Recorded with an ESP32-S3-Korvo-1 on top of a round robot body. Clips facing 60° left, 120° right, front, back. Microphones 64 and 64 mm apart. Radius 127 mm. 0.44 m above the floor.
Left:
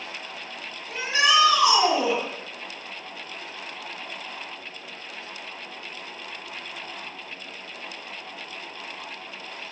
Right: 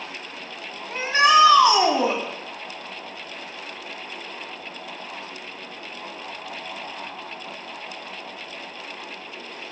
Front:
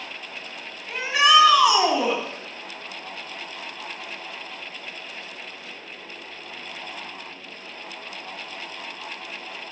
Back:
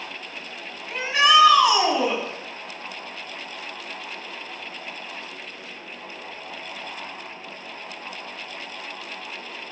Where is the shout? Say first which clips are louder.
Right 5 dB, even; 85° right, 1.6 m.